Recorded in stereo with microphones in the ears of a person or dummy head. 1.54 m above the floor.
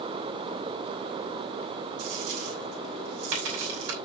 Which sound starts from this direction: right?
A dropped coin, at 2.0 s.